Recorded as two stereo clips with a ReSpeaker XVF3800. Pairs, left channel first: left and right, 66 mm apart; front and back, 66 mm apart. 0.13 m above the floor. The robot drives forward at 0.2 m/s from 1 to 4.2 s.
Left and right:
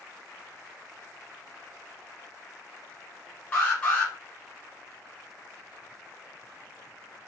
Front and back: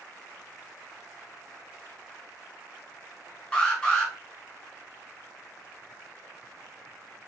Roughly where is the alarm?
Ahead left.